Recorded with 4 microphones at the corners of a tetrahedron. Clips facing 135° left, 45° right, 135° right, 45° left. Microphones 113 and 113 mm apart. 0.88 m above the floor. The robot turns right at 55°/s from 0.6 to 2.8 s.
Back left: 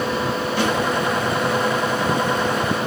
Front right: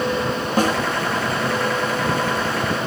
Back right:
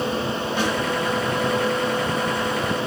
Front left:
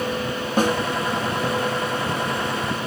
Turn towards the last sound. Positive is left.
turn(degrees=120)